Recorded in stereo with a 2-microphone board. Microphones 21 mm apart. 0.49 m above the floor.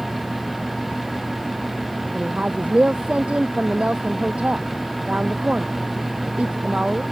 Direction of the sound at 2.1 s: 85° right.